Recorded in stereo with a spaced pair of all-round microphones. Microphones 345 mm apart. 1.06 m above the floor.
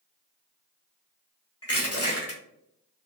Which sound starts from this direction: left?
Crushing, at 1.6 s.